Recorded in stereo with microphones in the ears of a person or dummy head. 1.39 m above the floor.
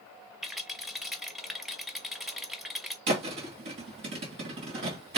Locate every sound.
0.4 s a rattle: centre (ahead or behind), 0.8 m
3.1 s a thud: 60° right (ahead or behind), 2 m